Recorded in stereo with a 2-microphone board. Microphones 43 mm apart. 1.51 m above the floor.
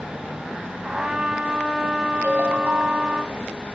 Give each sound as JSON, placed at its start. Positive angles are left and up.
{"t": 0.8, "sound": "a trumpet", "side_deg": -15, "distance_m": 2.0}
{"t": 2.2, "sound": "a ringtone", "side_deg": -55, "distance_m": 5.5}